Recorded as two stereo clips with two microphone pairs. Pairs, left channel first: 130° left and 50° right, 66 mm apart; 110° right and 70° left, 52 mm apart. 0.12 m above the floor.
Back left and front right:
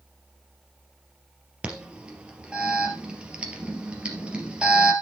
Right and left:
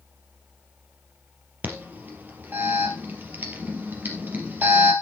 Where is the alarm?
20° left, 3 m.